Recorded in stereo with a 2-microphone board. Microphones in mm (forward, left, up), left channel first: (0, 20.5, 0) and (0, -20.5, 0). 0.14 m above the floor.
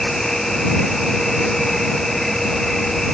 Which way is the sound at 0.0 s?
5° left (ahead or behind).